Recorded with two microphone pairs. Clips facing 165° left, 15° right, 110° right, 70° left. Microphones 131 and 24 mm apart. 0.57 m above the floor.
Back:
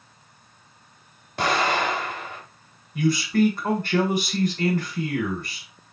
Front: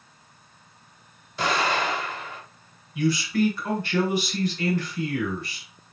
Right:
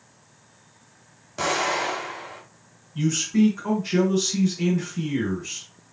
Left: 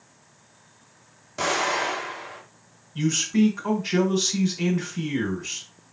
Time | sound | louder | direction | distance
1.4 | an explosion | back 2 dB, even | 160° left | 2.5 m
3.0 | a man speaking | back 2 dB, even | 130° left | 2 m